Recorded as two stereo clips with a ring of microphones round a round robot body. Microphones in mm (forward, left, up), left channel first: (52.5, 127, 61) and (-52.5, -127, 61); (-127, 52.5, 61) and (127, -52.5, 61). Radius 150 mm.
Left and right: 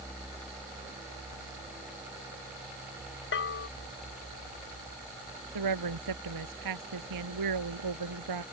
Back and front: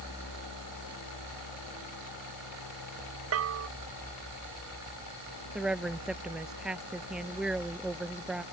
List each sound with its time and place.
3.3 s a bell: 15° left
5.5 s a woman speaking: 110° right